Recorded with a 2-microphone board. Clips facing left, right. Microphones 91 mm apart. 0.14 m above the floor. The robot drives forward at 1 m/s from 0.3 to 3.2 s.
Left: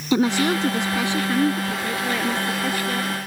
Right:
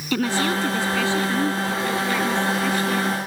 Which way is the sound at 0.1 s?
20° left (ahead or behind).